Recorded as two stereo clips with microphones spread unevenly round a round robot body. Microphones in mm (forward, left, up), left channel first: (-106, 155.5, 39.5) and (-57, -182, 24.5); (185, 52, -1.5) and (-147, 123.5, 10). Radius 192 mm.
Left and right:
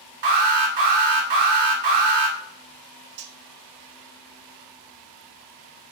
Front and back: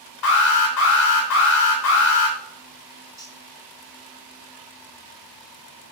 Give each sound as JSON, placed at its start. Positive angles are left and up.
{"t": 0.2, "sound": "an alarm", "azimuth_deg": -60, "distance_m": 3.0}
{"t": 3.2, "sound": "cutlery clinking", "azimuth_deg": -110, "distance_m": 0.9}